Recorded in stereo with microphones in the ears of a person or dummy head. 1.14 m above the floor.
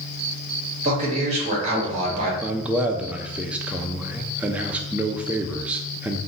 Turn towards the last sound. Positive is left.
turn(degrees=-10)  # may be behind; listen again after turning